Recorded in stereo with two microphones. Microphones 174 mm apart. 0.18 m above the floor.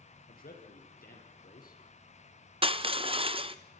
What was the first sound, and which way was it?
A man speaking, 60° left (ahead or behind).